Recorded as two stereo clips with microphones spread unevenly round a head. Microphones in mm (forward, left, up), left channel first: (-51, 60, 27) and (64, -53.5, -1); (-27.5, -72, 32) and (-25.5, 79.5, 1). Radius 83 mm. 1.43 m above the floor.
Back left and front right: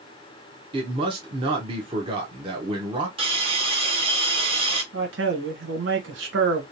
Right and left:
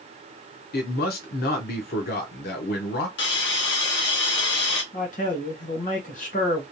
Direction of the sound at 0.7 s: 110° right.